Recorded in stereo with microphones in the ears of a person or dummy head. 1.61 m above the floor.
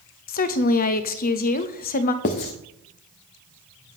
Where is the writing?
35° left (ahead or behind), 1.0 m.